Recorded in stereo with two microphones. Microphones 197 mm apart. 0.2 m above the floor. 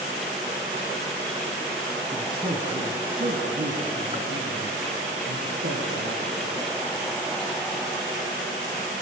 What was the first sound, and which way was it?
A man speaking, 20° right (ahead or behind).